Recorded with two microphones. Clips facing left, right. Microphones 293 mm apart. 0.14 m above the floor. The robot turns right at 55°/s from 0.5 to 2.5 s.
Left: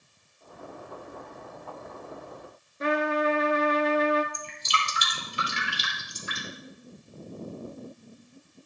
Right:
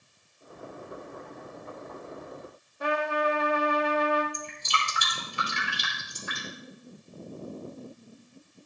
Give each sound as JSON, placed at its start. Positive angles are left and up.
{"t": 2.8, "sound": "a trumpet", "side_deg": 25, "distance_m": 0.8}
{"t": 4.3, "sound": "dripping", "side_deg": -55, "distance_m": 3.5}